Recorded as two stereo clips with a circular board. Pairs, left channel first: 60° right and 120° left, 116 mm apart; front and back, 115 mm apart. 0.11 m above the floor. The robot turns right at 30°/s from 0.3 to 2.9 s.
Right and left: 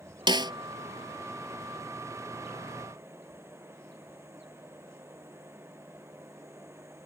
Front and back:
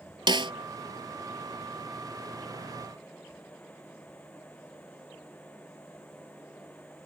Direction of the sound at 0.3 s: 150° left.